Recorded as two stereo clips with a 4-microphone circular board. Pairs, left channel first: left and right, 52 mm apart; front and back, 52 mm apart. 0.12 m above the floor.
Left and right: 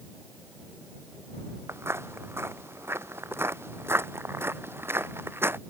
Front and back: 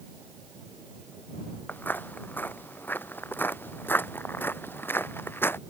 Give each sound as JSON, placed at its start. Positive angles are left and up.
{"t": 1.7, "sound": "footsteps", "azimuth_deg": -55}